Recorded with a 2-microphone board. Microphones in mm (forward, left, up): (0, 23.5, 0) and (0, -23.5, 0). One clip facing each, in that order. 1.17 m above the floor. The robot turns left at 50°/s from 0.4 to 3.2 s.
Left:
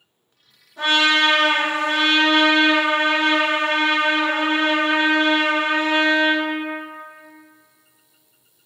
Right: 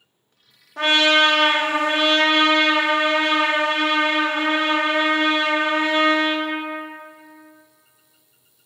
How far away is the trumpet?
About 0.5 m.